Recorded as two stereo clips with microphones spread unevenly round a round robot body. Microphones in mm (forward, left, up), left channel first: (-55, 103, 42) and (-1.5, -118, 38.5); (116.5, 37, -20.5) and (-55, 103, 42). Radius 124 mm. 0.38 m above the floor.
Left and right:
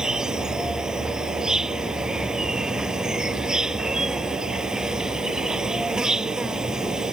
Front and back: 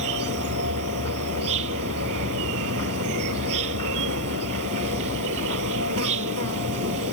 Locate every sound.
0.0 s an insect: 165° right